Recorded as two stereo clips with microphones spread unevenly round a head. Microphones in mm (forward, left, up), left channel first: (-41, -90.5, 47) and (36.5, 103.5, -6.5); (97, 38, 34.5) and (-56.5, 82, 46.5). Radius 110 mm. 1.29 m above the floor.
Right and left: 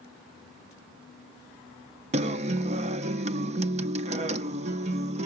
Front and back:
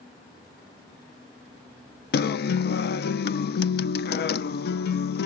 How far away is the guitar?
About 0.5 m.